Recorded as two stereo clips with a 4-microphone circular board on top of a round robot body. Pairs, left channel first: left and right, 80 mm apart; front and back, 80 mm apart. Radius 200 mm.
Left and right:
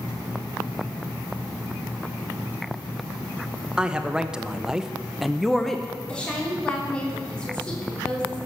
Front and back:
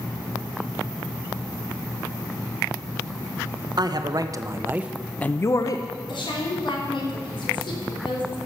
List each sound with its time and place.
3.8 s a man speaking: 170° right, 1.3 m; by 5.9 s 5° left, 1.0 m
6.1 s a woman speaking: 10° left, 3.5 m